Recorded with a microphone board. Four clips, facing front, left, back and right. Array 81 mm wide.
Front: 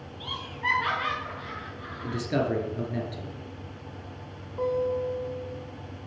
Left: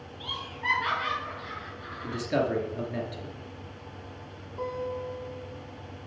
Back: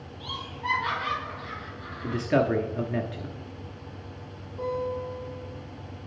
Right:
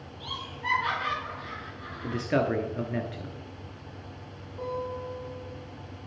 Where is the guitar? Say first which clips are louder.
Left 1 dB, front 3 dB; 20° left, 3.5 m.